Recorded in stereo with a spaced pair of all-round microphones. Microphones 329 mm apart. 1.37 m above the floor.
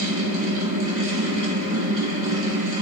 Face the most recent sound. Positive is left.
turn(degrees=-60)  # may be behind; listen again after turning